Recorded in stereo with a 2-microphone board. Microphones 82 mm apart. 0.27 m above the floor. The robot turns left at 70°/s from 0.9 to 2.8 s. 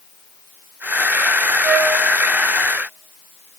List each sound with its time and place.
1.6 s a flute: 55° right (ahead or behind), 2 m; by 1.9 s 35° right (ahead or behind), 2 m